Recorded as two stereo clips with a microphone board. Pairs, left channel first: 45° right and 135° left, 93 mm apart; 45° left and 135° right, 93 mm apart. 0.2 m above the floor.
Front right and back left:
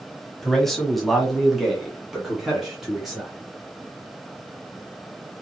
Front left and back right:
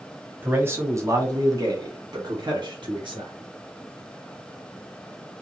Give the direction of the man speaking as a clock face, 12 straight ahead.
4 o'clock.